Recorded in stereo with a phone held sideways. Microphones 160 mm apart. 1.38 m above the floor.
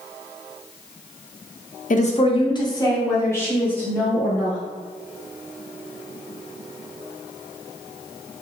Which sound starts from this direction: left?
A woman speaking, at 1.9 s.